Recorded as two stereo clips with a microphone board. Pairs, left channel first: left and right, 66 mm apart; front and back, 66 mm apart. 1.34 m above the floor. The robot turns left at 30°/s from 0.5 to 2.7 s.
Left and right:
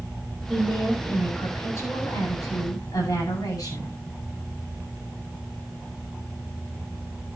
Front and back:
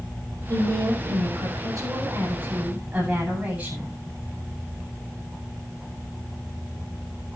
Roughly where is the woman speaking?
Behind.